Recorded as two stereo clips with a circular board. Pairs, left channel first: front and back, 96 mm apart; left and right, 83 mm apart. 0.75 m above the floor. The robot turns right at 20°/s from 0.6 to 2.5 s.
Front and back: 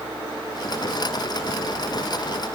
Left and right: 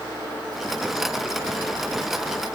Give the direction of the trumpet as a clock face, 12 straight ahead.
No trumpet in this recording.